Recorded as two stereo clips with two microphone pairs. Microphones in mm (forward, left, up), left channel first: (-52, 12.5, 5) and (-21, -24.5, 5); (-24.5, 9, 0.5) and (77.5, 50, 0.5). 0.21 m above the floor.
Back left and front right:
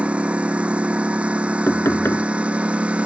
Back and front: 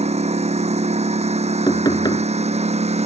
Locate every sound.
0.0 s a lawn mower: 15° left
1.7 s knocking: 155° left